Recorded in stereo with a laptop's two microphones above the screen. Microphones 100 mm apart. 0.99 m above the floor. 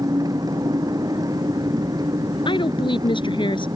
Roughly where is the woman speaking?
Left.